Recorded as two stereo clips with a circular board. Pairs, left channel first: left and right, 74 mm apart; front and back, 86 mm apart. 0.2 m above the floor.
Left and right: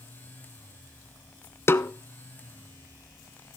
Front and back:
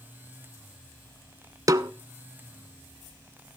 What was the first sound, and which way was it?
A snare drum, 140° left.